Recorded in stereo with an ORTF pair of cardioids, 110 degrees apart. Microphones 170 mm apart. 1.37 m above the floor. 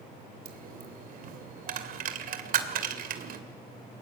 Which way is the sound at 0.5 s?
60° right.